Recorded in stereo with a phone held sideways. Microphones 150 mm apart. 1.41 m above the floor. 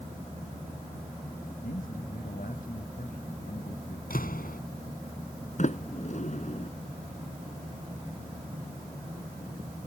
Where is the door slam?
80° left.